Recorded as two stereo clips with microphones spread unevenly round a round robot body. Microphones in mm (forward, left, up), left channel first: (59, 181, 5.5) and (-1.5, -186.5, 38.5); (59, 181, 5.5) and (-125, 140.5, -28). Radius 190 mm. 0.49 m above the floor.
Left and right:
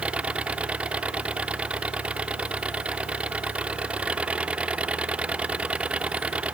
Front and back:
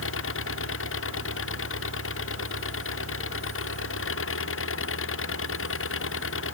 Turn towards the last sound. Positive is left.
turn(degrees=-10)